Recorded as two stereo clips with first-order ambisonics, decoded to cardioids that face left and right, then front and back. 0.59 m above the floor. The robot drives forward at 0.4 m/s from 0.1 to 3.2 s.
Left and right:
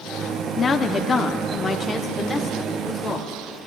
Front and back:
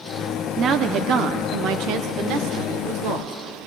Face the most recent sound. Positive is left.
turn(degrees=170)